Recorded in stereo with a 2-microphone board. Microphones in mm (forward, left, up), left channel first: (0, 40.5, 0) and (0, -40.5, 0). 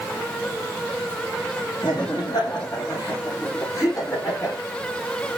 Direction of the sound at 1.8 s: 55° left (ahead or behind).